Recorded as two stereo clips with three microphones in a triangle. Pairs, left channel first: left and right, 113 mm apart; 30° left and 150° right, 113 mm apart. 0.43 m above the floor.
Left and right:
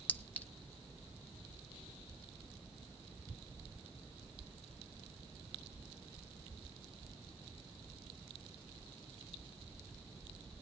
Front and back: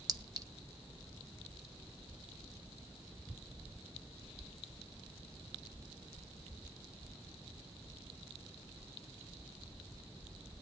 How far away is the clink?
About 0.9 m.